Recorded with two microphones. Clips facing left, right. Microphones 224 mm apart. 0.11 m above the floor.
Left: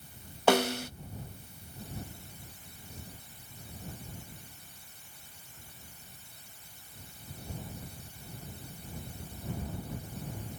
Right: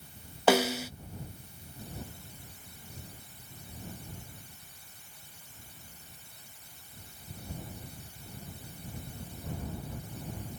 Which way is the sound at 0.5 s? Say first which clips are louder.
Right 1 dB; 5° right (ahead or behind).